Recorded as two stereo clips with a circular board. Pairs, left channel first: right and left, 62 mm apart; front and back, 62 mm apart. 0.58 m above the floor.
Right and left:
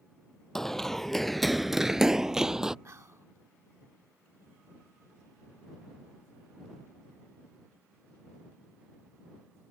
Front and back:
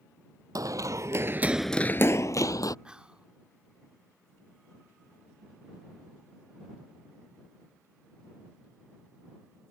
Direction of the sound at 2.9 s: 110° left.